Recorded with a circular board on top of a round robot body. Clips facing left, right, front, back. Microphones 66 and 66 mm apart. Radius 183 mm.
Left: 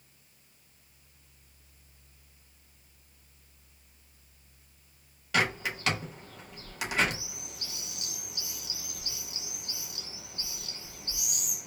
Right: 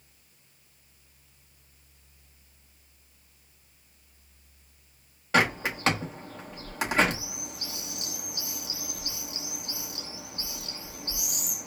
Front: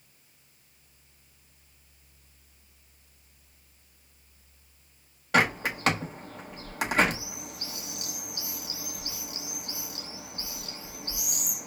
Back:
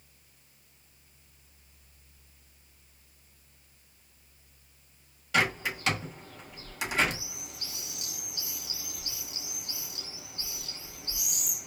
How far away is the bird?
About 1.2 m.